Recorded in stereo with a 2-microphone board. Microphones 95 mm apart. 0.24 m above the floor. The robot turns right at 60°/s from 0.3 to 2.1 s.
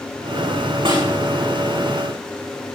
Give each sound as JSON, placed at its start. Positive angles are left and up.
{"t": 0.8, "sound": "a snare drum", "side_deg": -70, "distance_m": 6.5}